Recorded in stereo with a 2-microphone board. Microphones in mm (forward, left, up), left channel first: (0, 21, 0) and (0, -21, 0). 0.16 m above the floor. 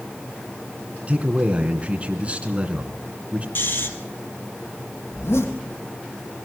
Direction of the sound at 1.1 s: 30° right (ahead or behind).